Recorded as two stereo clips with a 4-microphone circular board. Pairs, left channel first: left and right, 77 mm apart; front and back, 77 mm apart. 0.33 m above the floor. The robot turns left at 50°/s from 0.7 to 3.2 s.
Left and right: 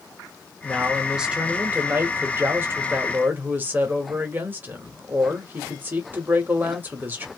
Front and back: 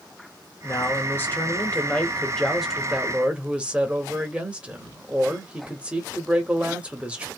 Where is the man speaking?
5° left, 1.2 m; by 7.3 s 120° right, 1.2 m.